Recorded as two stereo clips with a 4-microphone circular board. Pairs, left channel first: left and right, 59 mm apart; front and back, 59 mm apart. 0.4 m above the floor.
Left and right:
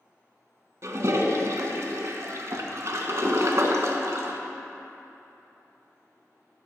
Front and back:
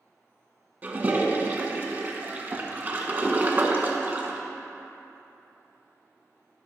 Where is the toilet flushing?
125° right, 0.7 m.